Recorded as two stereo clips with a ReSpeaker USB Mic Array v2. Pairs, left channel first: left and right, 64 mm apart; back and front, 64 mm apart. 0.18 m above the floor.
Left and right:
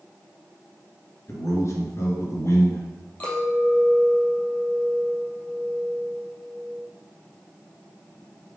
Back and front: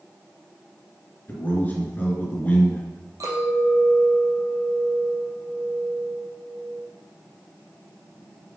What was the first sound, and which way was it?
A man speaking, 125° left.